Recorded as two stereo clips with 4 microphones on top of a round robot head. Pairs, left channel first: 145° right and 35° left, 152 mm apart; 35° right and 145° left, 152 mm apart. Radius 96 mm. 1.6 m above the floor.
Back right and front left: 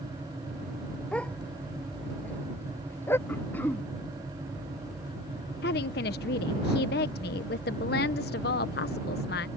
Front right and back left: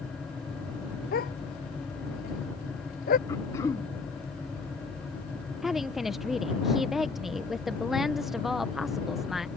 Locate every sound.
1.1 s a dog barking: 60° right; by 3.2 s 70° right
3.3 s throat clearing: 80° right
5.6 s a woman speaking: 125° right